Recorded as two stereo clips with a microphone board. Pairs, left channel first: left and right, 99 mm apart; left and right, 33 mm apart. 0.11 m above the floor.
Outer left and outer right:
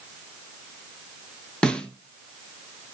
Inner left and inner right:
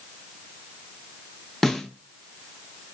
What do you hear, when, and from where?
1.6 s a snare drum: 10° left (ahead or behind), 0.7 m